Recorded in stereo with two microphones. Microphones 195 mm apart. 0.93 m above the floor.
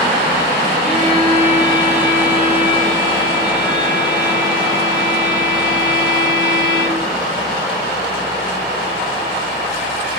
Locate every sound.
0.8 s a violin: 25° left (ahead or behind), 4.5 m